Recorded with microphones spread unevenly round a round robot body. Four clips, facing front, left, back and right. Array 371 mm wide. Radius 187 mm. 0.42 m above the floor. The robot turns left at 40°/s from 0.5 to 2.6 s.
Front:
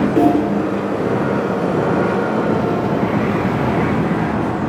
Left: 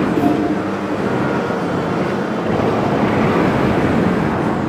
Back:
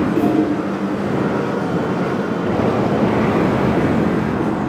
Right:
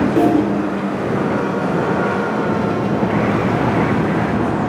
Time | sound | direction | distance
0.2 | a snare drum | 50° right | 2.5 m